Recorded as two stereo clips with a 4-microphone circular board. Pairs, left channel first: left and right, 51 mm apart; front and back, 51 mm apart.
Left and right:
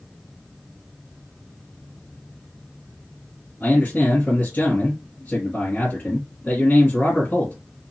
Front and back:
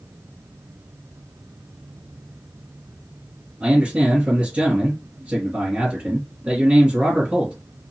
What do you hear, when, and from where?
3.6 s a man speaking: 130° left, 2.5 m